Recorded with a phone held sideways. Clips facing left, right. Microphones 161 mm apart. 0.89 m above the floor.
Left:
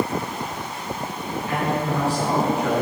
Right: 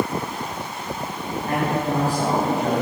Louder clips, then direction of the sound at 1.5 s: Right 1 dB; 45° right (ahead or behind).